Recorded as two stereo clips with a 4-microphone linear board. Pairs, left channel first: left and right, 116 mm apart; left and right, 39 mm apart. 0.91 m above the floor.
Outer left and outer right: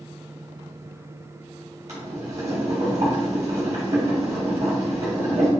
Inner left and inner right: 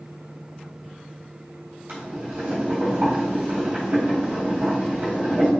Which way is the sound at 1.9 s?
75° right (ahead or behind).